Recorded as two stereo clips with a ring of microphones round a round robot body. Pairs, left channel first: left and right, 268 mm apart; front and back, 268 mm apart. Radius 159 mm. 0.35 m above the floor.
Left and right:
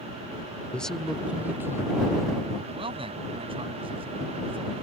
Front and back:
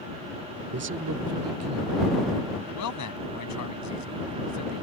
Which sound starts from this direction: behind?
A man speaking, at 0.7 s.